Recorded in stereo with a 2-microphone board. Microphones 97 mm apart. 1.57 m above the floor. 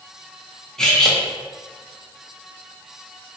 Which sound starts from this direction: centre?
Cutlery clinking, at 0.8 s.